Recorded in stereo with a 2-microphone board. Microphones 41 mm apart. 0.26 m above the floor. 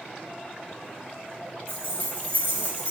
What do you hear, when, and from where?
1.7 s keys jangling: 60° right (ahead or behind), 1.9 m; by 2.9 s 35° right (ahead or behind), 1.7 m